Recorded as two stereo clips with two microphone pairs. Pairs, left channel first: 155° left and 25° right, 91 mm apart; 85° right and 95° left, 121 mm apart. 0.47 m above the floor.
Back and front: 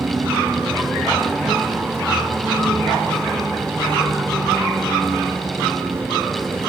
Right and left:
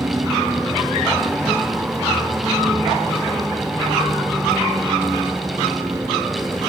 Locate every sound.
0.0 s a vehicle: 35° left